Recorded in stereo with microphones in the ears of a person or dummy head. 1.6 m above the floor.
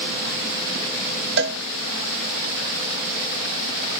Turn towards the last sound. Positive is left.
turn(degrees=-60)  # may be behind; listen again after turning